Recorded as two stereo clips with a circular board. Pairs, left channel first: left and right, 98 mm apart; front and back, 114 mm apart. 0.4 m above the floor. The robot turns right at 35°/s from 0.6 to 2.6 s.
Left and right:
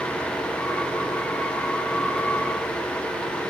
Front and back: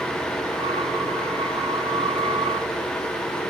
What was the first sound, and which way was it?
Only background noise.